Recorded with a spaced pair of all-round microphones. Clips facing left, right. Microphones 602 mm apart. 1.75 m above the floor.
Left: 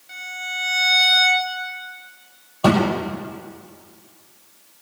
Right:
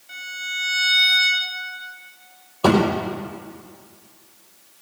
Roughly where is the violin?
Right.